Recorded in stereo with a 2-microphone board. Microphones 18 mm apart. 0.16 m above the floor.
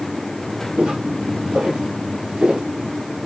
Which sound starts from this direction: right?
Footsteps, at 0.8 s.